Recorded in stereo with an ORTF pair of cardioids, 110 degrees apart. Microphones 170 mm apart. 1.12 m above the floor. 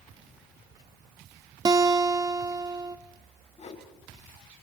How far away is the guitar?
About 1.1 m.